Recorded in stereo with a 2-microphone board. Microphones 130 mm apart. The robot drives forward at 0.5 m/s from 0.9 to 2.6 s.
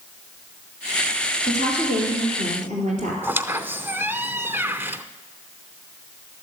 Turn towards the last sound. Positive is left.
turn(degrees=-15)  # may be behind; listen again after turning